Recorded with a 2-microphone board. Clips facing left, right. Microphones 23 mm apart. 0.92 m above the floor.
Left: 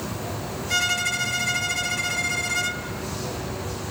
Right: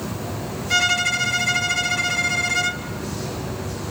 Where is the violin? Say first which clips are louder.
Right 4 dB; 10° right (ahead or behind), 0.9 m.